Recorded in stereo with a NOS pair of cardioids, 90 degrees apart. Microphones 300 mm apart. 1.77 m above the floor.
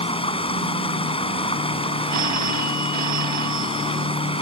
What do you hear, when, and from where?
0.0 s running water: 20° left
2.1 s a phone ringing: 70° right